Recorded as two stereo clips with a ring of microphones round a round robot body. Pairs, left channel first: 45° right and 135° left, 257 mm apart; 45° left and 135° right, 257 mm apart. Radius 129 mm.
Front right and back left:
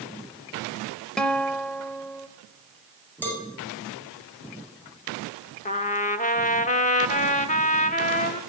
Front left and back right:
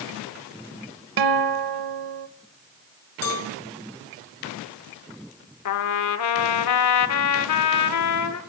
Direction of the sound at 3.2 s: 40° left.